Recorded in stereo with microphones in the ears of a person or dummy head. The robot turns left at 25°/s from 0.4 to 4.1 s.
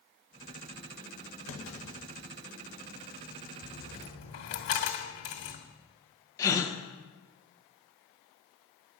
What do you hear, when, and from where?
1.5 s a clunk: 65° left (ahead or behind), 1.7 m; by 2.1 s 80° left, 1.7 m
3.6 s a dropped coin: 40° left (ahead or behind), 1.9 m; by 5.6 s 50° left (ahead or behind), 1.9 m
6.4 s a gasp: 15° left (ahead or behind), 1.2 m